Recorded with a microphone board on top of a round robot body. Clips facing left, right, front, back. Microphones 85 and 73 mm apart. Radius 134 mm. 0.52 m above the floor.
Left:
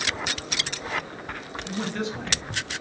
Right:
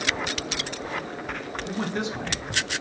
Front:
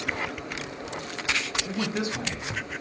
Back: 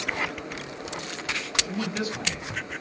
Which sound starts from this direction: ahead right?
A man speaking, at 1.6 s.